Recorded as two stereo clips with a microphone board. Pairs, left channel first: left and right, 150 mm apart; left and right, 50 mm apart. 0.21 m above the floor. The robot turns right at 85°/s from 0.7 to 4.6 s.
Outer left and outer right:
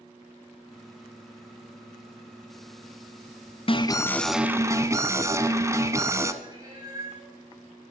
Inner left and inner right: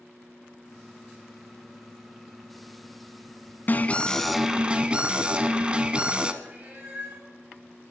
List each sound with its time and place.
3.7 s an alarm: 125° left, 1.0 m; by 6.3 s 155° right, 1.0 m
6.4 s a cat meowing: 30° right (ahead or behind), 6.5 m